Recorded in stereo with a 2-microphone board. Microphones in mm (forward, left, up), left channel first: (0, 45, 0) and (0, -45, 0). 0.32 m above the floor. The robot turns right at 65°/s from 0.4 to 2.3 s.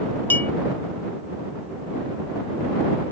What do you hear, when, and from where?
0.3 s a clink: 20° left (ahead or behind)